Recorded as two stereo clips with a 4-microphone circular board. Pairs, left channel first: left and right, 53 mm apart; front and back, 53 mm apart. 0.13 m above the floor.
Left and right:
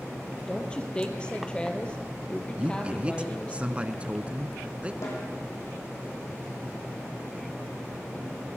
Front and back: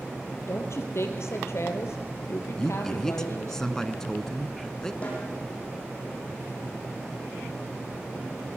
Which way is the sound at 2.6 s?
65° right.